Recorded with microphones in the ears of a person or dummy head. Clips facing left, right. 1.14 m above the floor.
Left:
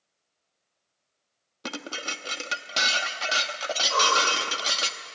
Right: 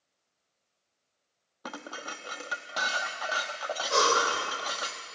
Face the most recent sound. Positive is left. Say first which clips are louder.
# right 2 dB
turn(degrees=-35)  # may be behind; listen again after turning